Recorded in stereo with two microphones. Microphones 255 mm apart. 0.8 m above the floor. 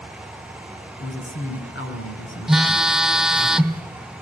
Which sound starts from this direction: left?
A man speaking, at 1.0 s.